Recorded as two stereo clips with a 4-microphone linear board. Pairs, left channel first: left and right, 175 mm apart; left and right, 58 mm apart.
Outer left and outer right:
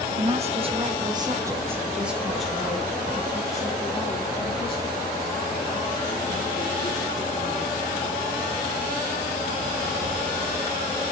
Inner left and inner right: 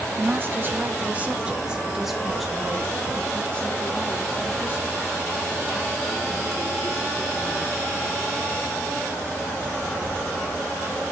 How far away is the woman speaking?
About 1.6 m.